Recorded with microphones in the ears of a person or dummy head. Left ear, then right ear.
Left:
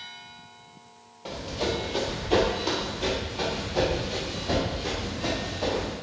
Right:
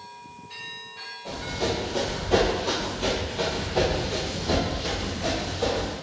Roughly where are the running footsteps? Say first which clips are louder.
Right 1 dB; left.